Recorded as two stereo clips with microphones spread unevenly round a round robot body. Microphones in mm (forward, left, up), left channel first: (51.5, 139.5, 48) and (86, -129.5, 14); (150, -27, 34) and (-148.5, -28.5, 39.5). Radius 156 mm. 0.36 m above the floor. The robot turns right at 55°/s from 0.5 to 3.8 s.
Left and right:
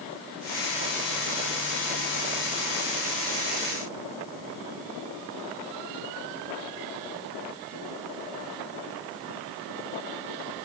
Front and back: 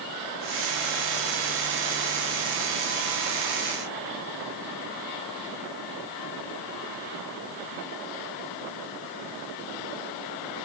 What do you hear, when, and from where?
Only background noise.